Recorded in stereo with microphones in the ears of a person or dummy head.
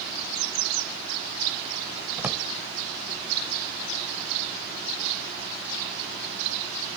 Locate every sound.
2.2 s a drawer: 10° right (ahead or behind)